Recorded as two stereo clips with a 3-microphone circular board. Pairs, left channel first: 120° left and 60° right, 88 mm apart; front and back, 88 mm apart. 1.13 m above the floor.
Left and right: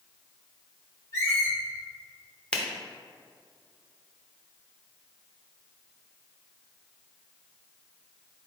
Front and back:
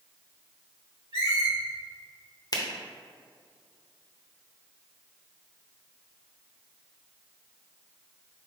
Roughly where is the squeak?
Behind.